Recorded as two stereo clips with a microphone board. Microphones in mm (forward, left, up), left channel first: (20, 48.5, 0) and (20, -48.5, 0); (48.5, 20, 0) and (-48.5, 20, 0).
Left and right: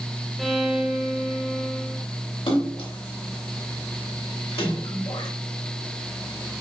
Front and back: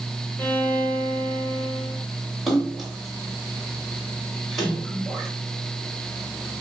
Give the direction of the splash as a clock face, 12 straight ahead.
9 o'clock.